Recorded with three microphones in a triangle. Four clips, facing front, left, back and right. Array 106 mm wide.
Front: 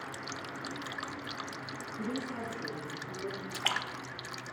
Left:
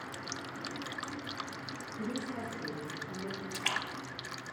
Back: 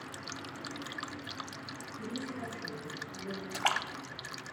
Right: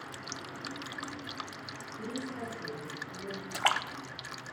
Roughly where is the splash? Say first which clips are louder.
Right 10 dB, back 6 dB; behind right.